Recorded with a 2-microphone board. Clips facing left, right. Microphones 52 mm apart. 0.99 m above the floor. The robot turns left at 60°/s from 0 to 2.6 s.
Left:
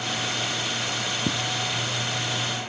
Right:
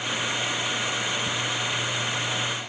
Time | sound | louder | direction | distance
1.2 | footsteps | left 1 dB | 50° left (ahead or behind) | 1.4 m